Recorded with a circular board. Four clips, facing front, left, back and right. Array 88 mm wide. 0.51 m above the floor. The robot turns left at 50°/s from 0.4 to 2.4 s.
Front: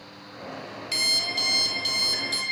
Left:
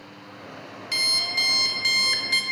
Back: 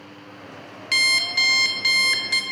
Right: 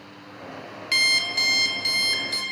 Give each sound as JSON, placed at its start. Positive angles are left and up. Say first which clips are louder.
{"t": 0.9, "sound": "an alarm clock", "louder": "right 5 dB, back 9 dB", "azimuth_deg": -145, "distance_m": 0.6}